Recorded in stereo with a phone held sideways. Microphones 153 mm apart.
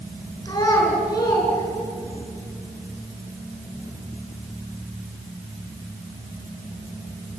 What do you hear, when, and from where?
0.5 s a child speaking: 25° left (ahead or behind), 7.5 m